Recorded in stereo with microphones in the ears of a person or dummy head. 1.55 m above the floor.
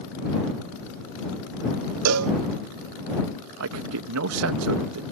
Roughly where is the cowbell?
Right.